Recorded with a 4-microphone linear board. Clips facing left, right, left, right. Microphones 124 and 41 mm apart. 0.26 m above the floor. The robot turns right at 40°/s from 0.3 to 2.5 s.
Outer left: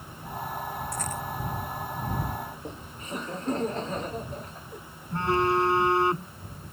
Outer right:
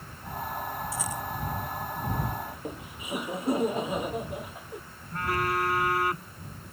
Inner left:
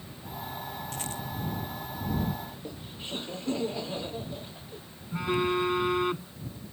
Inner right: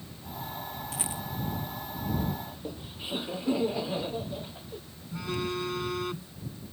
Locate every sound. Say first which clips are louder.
0.9 s a rattle: even, even; 5° right (ahead or behind); by 1.2 s 15° right (ahead or behind)
2.5 s laughter: outer right 1 dB, inner right 1 dB; 10° right (ahead or behind)
5.1 s a phone buzzing: outer left 5 dB, inner left 5 dB; 25° left (ahead or behind)